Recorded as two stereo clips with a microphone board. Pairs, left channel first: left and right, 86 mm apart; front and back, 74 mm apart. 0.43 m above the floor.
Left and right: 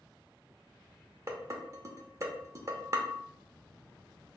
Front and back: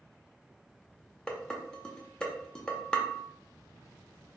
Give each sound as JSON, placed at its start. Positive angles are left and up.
{"t": 1.3, "sound": "dishes clattering", "azimuth_deg": -70, "distance_m": 0.6}